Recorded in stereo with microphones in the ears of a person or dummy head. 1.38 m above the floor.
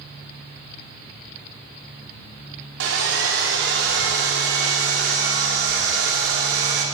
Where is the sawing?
55° right (ahead or behind), 4.5 m.